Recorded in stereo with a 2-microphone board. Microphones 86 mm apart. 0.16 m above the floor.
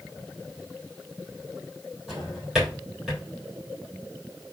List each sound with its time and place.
2.1 s a drawer: 5° right (ahead or behind), 3.5 m